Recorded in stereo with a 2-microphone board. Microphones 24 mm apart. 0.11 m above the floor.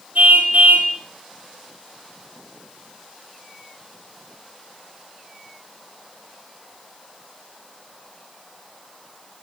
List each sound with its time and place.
0.1 s a car horn: 80° right, 4 m